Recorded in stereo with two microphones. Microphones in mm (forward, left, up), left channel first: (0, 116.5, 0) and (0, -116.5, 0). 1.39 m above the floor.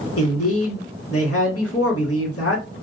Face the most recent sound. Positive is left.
turn(degrees=75)  # may be behind; listen again after turning